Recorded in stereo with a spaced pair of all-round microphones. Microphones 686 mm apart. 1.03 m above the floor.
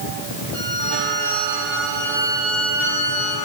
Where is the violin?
10° left (ahead or behind), 6 m.